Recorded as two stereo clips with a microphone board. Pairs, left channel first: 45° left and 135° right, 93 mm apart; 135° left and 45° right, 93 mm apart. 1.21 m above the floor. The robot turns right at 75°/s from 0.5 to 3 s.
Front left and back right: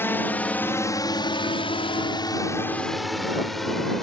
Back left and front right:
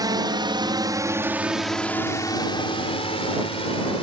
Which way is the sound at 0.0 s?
15° right.